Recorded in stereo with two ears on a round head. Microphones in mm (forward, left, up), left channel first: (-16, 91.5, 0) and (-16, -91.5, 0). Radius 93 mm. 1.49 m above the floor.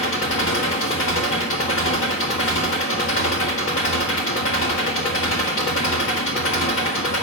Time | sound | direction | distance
0.0 | an engine running | 70° left (ahead or behind) | 1.8 m